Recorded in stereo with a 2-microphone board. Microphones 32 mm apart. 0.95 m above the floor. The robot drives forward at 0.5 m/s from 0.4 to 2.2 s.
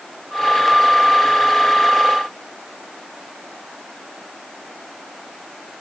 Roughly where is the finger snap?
No finger snap in this recording.